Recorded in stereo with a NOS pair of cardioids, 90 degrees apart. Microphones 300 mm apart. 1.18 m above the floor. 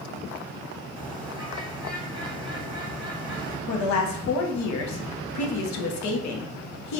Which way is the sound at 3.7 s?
70° left.